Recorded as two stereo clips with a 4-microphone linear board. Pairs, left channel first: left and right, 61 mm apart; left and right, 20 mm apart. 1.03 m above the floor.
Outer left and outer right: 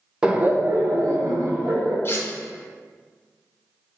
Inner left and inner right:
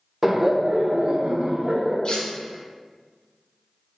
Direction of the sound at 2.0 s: 40° left (ahead or behind).